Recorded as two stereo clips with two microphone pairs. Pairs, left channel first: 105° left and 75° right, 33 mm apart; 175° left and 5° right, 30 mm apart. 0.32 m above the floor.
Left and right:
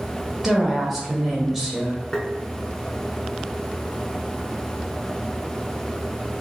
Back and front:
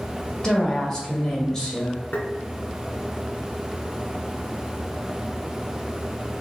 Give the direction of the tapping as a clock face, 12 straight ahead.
6 o'clock.